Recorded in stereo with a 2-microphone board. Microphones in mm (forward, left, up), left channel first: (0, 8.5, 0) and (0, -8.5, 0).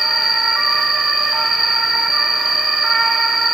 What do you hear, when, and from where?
0.0 s an insect: 30° right (ahead or behind), 3.5 m